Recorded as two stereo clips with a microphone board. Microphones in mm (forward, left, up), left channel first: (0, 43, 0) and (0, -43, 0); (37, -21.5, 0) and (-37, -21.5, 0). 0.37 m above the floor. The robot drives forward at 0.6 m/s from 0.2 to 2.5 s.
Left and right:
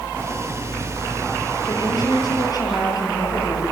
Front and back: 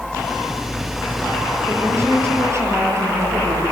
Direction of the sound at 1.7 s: 125° left.